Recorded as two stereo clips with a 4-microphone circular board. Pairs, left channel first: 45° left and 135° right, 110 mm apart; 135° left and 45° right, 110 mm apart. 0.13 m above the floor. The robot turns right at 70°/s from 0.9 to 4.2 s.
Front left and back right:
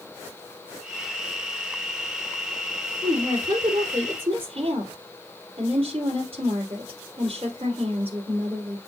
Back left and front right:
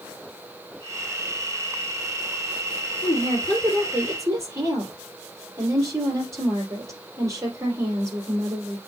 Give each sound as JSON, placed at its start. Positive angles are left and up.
{"t": 3.0, "sound": "a woman speaking", "azimuth_deg": 170, "distance_m": 3.5}